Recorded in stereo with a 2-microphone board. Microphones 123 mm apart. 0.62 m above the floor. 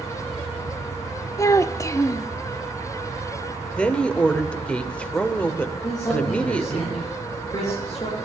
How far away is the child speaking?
About 0.8 m.